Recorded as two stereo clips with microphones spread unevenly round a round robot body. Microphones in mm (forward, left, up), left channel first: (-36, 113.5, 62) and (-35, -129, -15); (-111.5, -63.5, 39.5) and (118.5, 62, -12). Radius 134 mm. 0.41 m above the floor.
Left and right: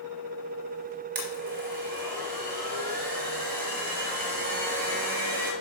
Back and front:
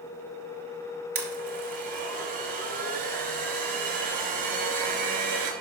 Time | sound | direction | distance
1.1 | a blender | 30° right | 2.5 m